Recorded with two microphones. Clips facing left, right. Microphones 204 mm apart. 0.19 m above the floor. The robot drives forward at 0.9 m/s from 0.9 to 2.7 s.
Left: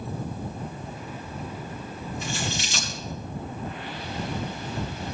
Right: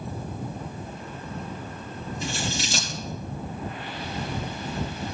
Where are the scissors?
35° right (ahead or behind), 6 m; by 2.9 s 40° right (ahead or behind), 5.5 m.